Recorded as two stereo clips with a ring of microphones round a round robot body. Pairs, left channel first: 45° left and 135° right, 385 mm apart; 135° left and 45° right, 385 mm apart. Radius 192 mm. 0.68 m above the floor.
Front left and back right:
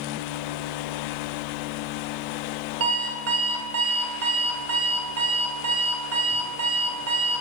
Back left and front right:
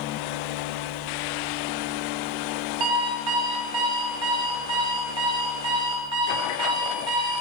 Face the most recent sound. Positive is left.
turn(degrees=-80)